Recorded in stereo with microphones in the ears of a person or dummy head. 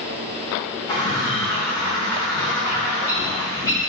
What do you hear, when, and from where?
0.9 s a bird: 15° left (ahead or behind), 3 m